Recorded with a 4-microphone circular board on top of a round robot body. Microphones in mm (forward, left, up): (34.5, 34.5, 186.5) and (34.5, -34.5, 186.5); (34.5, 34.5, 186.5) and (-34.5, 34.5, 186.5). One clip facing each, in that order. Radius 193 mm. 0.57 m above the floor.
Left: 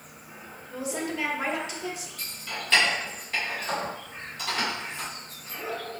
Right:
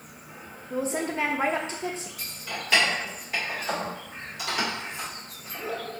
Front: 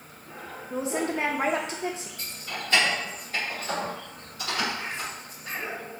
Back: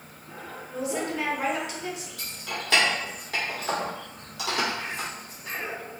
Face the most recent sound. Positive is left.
turn(degrees=-170)